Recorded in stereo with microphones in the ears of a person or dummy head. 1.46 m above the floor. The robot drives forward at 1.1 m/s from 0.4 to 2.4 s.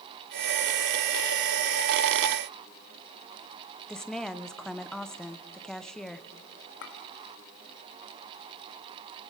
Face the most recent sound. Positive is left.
turn(degrees=65)  # may be behind; listen again after turning